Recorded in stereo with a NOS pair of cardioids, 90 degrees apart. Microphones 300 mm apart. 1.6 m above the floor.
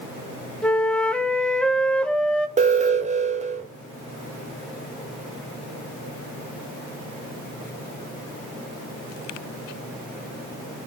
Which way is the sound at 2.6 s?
25° right.